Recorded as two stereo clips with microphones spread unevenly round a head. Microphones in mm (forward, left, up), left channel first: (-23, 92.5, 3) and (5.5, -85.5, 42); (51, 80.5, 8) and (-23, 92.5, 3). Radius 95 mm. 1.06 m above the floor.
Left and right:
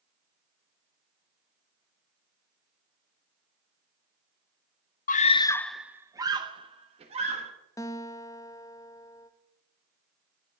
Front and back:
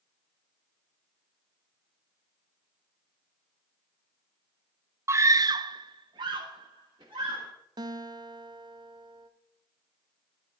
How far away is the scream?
About 0.5 m.